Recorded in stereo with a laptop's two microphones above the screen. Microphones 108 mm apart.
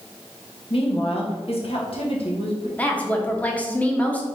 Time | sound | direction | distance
0.7 | a woman speaking | 60° left (ahead or behind) | 1.2 m
2.8 | a woman speaking | 15° left (ahead or behind) | 1.0 m